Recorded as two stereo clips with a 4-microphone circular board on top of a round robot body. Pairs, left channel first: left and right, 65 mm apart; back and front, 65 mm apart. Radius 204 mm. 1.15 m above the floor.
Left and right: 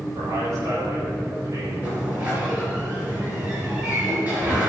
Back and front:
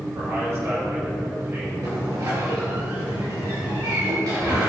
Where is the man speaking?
50° right, 5 m.